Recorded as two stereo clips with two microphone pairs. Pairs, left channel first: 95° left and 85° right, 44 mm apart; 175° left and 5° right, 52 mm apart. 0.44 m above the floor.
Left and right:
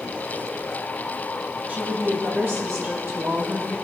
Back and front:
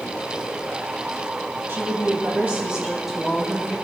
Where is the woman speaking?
35° right, 3 m; by 3.8 s 105° right, 3.5 m.